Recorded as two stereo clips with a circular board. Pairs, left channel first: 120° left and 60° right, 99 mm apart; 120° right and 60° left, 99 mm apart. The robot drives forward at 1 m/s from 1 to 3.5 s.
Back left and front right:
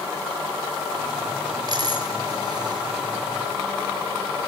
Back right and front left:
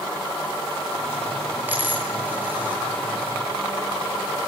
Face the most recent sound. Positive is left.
turn(degrees=-15)